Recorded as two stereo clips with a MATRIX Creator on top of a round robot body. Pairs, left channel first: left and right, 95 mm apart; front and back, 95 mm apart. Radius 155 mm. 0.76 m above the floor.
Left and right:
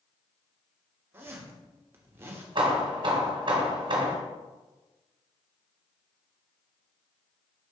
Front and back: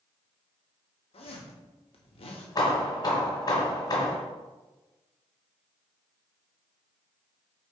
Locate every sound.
1.1 s a zipper: 25° right, 0.9 m
2.5 s hammering: 50° right, 1.3 m